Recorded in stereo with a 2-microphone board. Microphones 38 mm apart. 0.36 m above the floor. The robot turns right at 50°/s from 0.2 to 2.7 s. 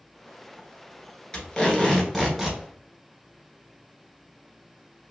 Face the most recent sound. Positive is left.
turn(degrees=-155)